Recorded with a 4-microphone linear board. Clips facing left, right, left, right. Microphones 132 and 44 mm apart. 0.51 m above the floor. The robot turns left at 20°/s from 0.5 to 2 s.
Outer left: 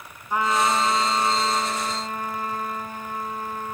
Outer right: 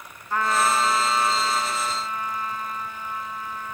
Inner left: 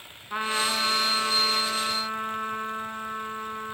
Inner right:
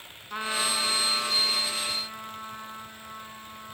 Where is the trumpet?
165° left, 3.5 m; by 3.7 s 135° left, 3.5 m.